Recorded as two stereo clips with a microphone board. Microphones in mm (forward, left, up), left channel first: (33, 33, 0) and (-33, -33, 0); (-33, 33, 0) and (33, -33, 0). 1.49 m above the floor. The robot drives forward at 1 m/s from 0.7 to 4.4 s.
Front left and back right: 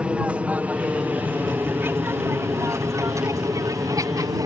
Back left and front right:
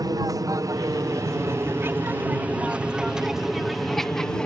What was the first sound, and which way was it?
An aircraft, 65° right.